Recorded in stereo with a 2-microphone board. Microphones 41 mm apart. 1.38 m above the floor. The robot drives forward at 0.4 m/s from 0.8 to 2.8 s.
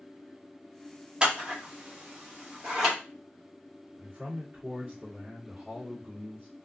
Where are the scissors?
25° right (ahead or behind), 0.8 m; by 3.0 s 15° right (ahead or behind), 1.2 m.